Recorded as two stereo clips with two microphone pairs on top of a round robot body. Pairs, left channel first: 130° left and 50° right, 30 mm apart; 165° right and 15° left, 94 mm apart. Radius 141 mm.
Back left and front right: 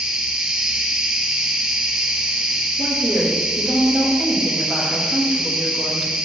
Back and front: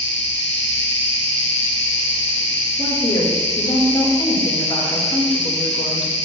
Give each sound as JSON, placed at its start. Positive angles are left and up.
{"t": 0.0, "sound": "an insect", "azimuth_deg": -110, "distance_m": 3.5}
{"t": 2.8, "sound": "a woman speaking", "azimuth_deg": -130, "distance_m": 3.5}